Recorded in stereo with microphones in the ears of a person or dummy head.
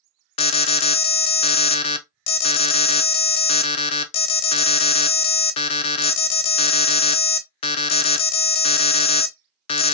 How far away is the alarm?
About 0.5 m.